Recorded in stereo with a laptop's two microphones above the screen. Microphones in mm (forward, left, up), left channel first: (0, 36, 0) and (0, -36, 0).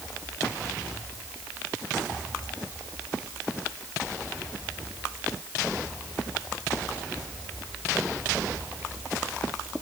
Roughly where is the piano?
No piano in this recording.